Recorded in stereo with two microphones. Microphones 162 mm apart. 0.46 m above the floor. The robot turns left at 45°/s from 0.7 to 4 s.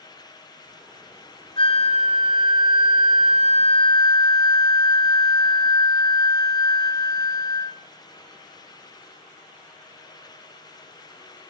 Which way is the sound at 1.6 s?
140° left.